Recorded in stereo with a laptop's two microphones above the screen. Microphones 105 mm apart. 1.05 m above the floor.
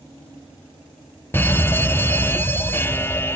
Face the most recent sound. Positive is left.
turn(degrees=20)  # may be behind; listen again after turning